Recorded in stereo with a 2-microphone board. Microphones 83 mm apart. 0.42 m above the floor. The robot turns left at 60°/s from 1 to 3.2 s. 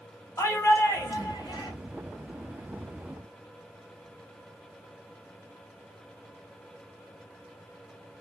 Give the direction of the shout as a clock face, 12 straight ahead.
8 o'clock.